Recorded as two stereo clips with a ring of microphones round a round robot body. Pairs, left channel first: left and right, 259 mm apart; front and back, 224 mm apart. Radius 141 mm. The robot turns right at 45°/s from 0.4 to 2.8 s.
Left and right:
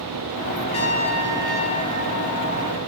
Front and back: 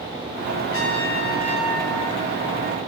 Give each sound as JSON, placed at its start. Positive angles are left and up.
{"t": 0.7, "sound": "a trumpet", "azimuth_deg": 20, "distance_m": 3.0}